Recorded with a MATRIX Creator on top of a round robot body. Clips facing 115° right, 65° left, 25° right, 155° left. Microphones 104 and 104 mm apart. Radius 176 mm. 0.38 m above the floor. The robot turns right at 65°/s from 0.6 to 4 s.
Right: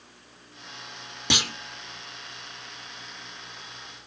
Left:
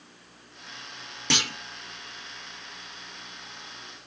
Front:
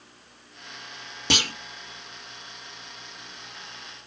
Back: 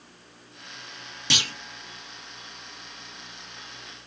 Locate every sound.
1.3 s a clunk: 40° right, 1.0 m; by 1.5 s 25° right, 1.0 m